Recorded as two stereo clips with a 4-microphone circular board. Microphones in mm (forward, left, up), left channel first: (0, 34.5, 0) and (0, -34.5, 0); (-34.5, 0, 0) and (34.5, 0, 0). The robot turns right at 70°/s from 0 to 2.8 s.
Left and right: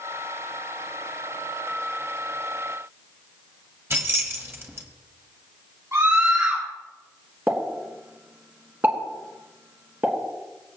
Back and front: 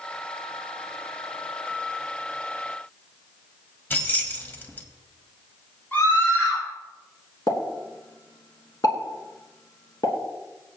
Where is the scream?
120° right, 4 m.